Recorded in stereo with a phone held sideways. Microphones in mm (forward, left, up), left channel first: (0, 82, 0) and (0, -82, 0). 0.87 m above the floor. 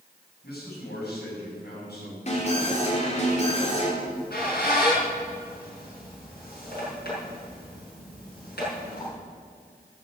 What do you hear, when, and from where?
0.4 s a man speaking: 75° left (ahead or behind), 7 m
2.3 s an alarm: 40° left (ahead or behind), 4 m
4.0 s a squeak: 75° left (ahead or behind), 6 m